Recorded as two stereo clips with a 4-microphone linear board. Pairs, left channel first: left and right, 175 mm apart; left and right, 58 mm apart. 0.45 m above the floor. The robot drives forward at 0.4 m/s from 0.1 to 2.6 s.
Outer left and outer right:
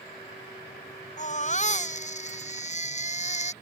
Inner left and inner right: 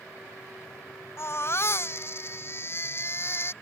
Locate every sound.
1.2 s a baby crying: 45° left (ahead or behind); by 3.5 s 40° left (ahead or behind)